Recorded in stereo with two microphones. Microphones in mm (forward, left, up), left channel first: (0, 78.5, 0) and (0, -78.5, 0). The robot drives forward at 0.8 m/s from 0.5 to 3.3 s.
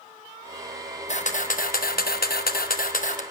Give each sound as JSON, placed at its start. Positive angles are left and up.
{"t": 1.1, "sound": "a camera shutter", "side_deg": 50, "distance_m": 1.4}